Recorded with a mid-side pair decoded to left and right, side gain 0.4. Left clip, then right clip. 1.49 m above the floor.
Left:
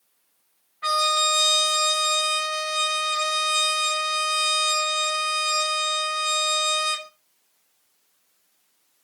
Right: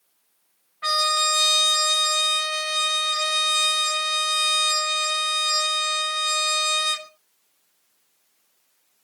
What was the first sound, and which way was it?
A trumpet, 20° right.